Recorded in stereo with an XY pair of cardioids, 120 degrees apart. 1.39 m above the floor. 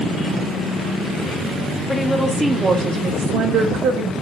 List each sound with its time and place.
1.9 s a woman speaking: 10° left, 0.8 m; by 4.1 s 75° right, 1.1 m